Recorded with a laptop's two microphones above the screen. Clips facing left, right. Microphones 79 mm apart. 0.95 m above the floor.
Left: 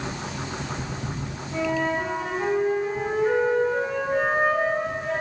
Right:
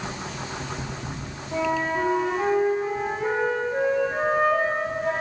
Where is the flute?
50° right (ahead or behind), 3 m.